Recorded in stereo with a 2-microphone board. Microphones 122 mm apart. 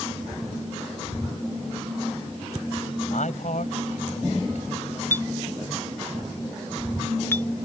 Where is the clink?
20° left (ahead or behind).